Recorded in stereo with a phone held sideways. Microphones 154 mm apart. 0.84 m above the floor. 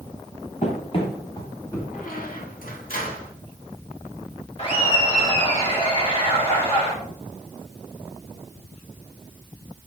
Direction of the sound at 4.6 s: 40° left (ahead or behind).